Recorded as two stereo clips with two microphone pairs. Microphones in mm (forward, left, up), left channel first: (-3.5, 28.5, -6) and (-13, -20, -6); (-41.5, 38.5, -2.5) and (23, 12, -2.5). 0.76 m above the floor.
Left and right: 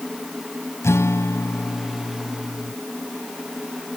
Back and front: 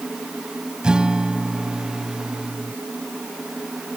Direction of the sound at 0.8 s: 55° left.